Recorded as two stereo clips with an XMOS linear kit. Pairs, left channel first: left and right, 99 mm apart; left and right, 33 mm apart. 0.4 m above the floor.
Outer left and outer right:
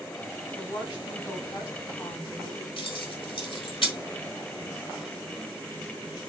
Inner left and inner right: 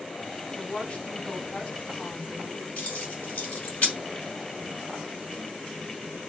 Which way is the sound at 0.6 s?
40° left (ahead or behind).